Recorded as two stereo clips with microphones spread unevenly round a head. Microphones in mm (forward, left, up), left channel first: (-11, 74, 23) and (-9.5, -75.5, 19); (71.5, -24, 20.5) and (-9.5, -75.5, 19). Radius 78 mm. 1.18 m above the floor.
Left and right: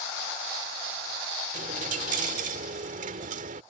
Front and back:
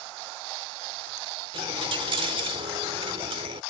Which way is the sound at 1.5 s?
125° right.